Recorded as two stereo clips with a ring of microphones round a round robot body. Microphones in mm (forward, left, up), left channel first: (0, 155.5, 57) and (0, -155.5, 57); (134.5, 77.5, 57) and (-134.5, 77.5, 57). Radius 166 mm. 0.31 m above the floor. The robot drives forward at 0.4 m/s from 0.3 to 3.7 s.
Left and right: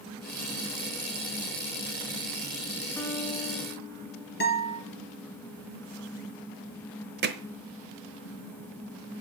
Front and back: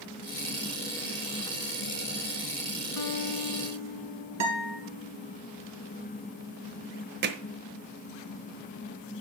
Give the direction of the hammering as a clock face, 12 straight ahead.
5 o'clock.